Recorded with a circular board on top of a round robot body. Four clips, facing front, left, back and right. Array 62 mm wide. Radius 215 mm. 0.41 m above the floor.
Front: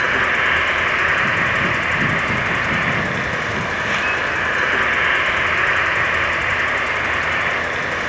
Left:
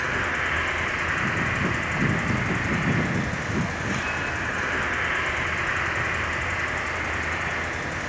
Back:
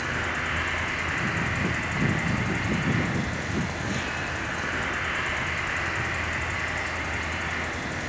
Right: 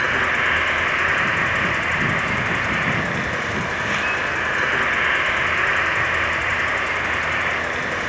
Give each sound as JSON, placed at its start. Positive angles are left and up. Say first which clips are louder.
{"t": 0.0, "sound": "an insect", "louder": "right 6 dB, front 11 dB", "azimuth_deg": -25, "distance_m": 3.0}